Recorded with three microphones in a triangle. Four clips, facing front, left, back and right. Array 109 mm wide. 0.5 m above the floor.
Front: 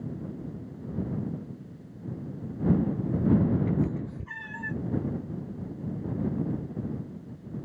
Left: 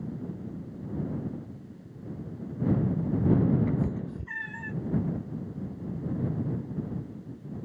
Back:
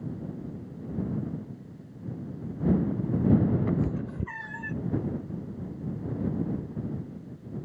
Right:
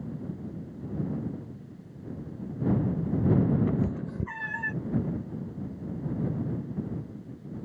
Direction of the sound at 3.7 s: 160° right.